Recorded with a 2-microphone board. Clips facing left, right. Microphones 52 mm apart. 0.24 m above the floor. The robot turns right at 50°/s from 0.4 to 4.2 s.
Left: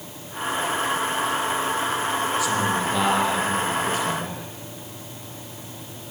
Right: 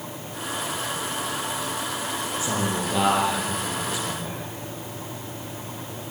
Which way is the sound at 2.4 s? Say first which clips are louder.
Left 4 dB; 30° right.